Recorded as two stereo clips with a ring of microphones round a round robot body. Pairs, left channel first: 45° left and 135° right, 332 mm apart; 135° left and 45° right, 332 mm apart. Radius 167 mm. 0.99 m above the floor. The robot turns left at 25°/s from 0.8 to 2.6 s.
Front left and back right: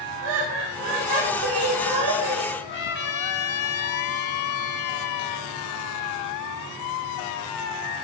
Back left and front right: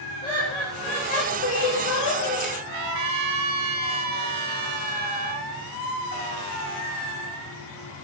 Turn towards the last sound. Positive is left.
turn(degrees=-15)